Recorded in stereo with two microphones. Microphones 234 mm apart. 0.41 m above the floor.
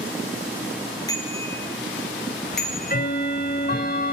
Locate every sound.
1.1 s a bicycle bell: 15° left (ahead or behind), 4.5 m; by 3.0 s centre (ahead or behind), 5 m
2.5 s ticking: 40° left (ahead or behind), 1.5 m